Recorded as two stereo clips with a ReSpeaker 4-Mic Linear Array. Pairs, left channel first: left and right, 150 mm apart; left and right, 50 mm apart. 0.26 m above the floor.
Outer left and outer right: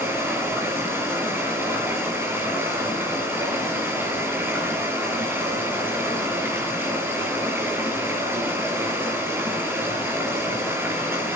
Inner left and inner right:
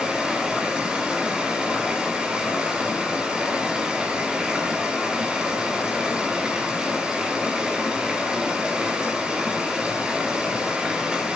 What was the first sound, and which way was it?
Running water, 15° right (ahead or behind).